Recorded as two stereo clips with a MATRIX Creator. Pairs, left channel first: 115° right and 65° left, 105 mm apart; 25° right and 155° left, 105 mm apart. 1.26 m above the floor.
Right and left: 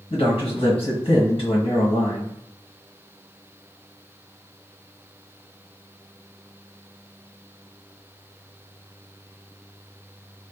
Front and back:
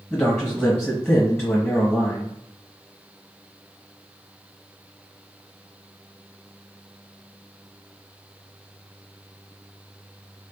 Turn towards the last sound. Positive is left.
turn(degrees=-110)